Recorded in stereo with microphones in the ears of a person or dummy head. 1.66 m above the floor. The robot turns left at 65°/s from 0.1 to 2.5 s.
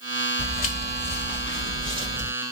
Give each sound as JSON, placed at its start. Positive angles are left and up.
{"t": 0.4, "sound": "footsteps", "side_deg": 30, "distance_m": 2.0}